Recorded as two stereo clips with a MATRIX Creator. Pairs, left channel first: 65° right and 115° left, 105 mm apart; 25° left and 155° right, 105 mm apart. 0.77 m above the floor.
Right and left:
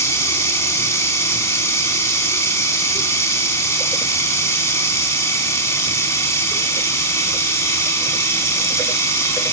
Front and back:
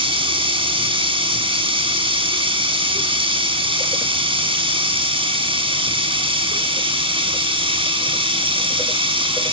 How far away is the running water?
About 6.5 m.